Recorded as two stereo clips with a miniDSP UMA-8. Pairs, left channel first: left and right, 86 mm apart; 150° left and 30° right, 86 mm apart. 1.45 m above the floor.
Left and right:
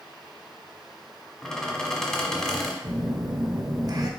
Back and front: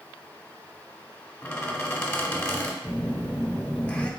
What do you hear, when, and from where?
1.4 s a squeak: 165° left, 1.2 m
2.8 s a phone buzzing: 135° right, 0.6 m